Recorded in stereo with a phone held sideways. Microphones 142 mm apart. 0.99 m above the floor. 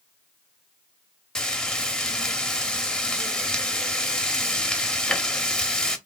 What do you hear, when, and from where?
1.4 s frying: 5° left (ahead or behind), 0.8 m